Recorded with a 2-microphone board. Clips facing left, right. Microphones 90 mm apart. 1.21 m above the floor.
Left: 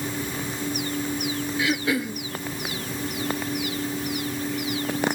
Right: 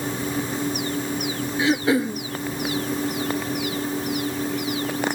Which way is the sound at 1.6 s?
30° right (ahead or behind).